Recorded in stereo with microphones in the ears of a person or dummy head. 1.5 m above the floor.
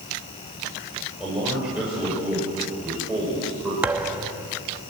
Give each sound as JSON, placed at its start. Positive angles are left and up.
{"t": 1.2, "sound": "a man speaking", "side_deg": -5, "distance_m": 6.0}
{"t": 3.8, "sound": "a thud", "side_deg": -10, "distance_m": 0.9}